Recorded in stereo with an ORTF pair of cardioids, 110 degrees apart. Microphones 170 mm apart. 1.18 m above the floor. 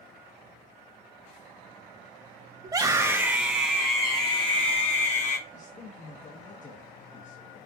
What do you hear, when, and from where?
2.6 s a scream: 25° right, 1.3 m; by 5.4 s 50° left, 1.6 m
5.5 s a man speaking: 45° left, 1.3 m